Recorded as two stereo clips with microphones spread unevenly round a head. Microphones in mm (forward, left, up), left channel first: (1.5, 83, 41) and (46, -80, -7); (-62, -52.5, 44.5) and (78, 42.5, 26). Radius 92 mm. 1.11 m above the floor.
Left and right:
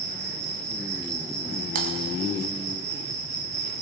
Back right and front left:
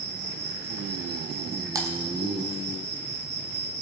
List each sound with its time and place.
0.0 s an insect: 20° right, 2.5 m
1.8 s typing on a keyboard: 35° right, 1.9 m